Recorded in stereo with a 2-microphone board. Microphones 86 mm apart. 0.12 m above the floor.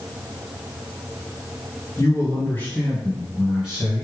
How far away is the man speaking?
About 1.6 m.